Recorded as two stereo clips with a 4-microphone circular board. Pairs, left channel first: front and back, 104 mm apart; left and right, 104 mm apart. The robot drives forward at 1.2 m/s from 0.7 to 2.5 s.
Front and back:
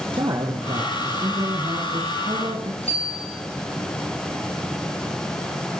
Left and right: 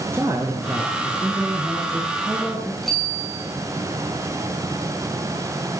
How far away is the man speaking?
About 2.5 m.